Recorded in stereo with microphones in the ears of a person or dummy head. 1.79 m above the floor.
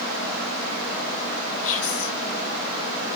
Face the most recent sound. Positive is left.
turn(degrees=70)  # may be behind; listen again after turning